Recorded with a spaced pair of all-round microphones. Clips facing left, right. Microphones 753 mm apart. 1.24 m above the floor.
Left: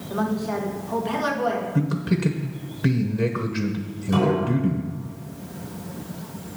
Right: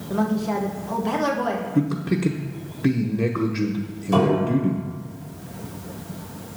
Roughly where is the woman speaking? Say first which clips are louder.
Right 2 dB; right.